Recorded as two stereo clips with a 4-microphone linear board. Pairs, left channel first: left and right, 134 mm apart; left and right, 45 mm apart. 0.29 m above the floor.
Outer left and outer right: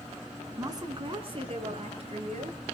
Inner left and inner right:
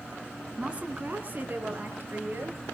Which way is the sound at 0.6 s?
25° right (ahead or behind).